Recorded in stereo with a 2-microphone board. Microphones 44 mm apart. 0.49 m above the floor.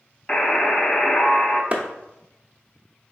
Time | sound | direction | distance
0.3 | a buzzer | 20° left (ahead or behind) | 0.6 m
1.7 | a clap | 30° right (ahead or behind) | 0.7 m